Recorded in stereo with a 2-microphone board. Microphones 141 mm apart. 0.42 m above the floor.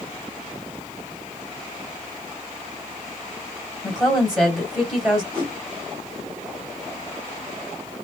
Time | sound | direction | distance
3.8 | a woman speaking | 5° right (ahead or behind) | 2.5 m
5.3 | a whoosh | 35° right (ahead or behind) | 3 m